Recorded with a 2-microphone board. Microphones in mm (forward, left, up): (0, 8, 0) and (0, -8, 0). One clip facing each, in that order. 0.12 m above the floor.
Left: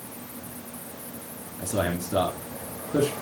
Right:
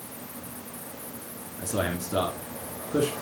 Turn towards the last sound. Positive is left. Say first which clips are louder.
# left 2 dB
turn(degrees=-5)  # may be behind; listen again after turning